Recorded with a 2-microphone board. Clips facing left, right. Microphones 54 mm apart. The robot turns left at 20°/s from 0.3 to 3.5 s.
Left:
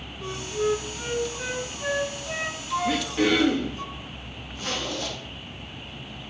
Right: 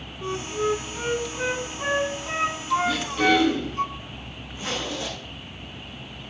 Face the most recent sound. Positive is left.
turn(degrees=-20)  # may be behind; listen again after turning